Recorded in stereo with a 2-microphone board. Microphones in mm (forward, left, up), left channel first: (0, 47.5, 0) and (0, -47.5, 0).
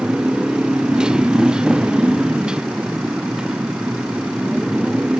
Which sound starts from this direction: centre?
A motorcycle, at 0.0 s.